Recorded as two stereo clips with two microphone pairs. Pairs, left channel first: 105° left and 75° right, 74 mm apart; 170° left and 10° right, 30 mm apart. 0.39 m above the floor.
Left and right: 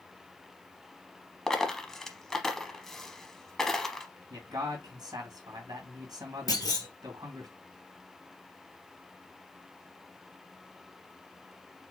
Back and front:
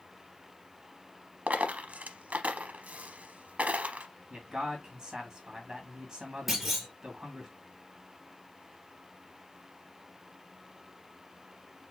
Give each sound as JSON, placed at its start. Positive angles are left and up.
{"t": 1.5, "sound": "a dropped coin", "azimuth_deg": 25, "distance_m": 0.7}
{"t": 4.3, "sound": "a man speaking", "azimuth_deg": -70, "distance_m": 2.0}
{"t": 6.5, "sound": "a clunk", "azimuth_deg": 75, "distance_m": 2.5}